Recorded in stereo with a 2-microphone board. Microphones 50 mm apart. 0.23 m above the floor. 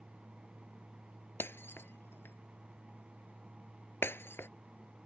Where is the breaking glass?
55° left (ahead or behind).